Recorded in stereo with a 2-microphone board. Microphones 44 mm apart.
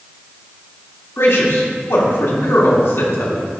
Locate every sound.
1.2 s a man speaking: 75° left (ahead or behind), 2.0 m